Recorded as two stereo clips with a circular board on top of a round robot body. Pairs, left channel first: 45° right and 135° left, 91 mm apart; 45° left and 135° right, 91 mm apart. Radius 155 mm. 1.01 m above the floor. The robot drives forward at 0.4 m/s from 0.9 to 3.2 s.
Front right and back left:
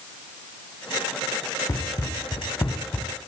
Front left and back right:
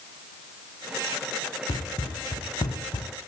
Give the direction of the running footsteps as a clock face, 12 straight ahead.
12 o'clock.